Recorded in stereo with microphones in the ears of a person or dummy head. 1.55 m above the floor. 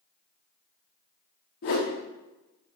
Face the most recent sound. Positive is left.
turn(degrees=30)  # may be behind; listen again after turning